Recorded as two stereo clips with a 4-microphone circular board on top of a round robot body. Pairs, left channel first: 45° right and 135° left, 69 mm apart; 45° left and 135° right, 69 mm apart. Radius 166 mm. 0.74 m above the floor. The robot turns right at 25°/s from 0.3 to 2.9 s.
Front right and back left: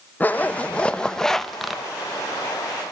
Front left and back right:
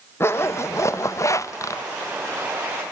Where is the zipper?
10° left, 1.2 m; by 1.8 s 50° left, 1.2 m.